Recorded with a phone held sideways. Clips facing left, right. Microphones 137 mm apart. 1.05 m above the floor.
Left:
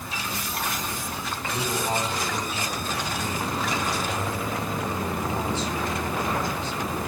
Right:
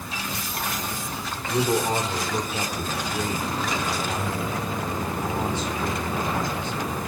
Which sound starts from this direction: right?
A man speaking, at 1.5 s.